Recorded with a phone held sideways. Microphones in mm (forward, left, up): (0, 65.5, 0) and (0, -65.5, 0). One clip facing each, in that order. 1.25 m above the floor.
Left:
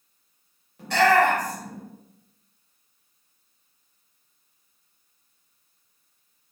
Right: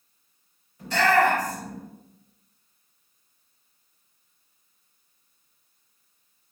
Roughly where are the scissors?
I don't hear scissors.